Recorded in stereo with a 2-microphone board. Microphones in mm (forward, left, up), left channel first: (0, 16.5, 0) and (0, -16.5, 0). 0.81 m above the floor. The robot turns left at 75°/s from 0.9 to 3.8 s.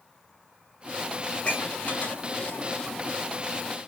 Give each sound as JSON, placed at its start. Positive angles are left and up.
{"t": 1.3, "sound": "dishes clattering", "side_deg": 30, "distance_m": 5.0}